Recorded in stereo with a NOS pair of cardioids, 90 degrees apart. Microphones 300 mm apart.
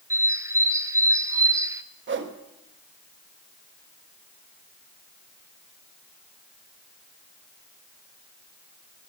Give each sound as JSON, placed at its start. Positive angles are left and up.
{"t": 0.1, "sound": "a bird", "azimuth_deg": -10, "distance_m": 0.8}
{"t": 2.1, "sound": "a whoosh", "azimuth_deg": -40, "distance_m": 1.4}